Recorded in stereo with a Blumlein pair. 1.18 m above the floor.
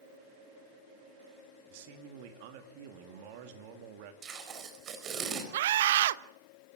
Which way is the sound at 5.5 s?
60° right.